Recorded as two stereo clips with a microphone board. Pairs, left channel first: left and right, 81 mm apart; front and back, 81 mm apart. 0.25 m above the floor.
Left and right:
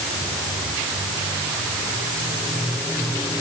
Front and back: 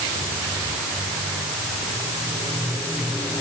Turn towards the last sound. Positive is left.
No sound to turn to.